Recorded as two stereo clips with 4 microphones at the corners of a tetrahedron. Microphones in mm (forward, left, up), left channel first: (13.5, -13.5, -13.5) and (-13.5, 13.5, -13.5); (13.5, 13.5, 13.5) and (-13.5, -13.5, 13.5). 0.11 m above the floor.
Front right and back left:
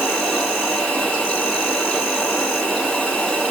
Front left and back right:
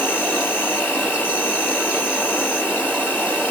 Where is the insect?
25° left, 2.5 m.